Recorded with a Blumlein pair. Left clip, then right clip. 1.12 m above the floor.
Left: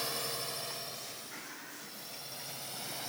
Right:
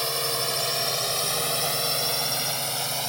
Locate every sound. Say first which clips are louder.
0.0 s a drone: right 10 dB; 25° right; by 3.1 s 60° right